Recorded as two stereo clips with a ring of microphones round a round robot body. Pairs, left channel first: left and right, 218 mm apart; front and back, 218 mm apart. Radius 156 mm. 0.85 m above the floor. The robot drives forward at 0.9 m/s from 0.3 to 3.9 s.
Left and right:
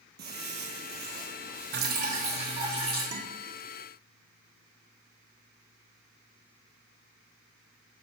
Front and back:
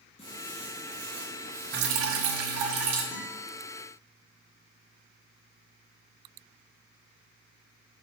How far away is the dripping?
About 0.6 m.